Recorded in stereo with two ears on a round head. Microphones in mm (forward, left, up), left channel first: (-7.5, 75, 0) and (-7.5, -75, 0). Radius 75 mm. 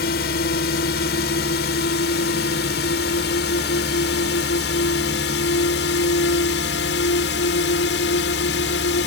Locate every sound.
0.0 s a drone: 60° left (ahead or behind); by 9.1 s 75° left (ahead or behind)